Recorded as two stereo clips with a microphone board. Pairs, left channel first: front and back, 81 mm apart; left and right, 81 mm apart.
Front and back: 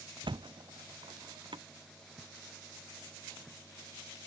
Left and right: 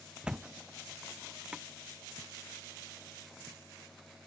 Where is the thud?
170° right.